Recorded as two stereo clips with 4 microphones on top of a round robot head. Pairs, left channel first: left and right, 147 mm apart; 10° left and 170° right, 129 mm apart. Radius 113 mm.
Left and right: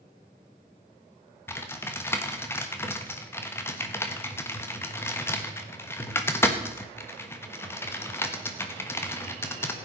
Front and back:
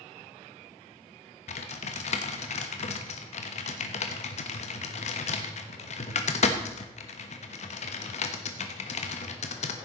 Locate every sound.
1.5 s typing on a keyboard: 20° left, 1.1 m